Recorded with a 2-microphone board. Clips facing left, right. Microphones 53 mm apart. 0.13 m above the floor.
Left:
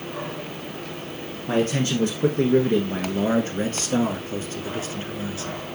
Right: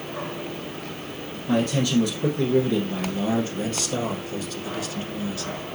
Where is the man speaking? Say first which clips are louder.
Even; 40° left (ahead or behind), 2 m; by 5.6 s 25° left (ahead or behind), 1.8 m.